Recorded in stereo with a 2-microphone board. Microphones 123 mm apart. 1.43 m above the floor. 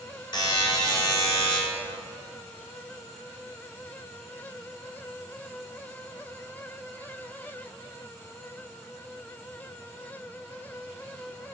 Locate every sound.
0.3 s a buzzer: 40° left (ahead or behind), 3.5 m